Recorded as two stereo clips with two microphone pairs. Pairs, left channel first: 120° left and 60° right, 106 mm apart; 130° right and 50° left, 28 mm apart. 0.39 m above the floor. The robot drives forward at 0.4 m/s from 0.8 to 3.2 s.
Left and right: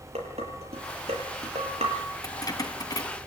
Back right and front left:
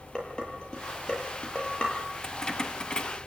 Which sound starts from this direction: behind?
Keys jangling, at 2.2 s.